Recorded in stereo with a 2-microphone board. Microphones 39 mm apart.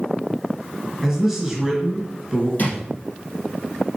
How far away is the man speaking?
About 3 m.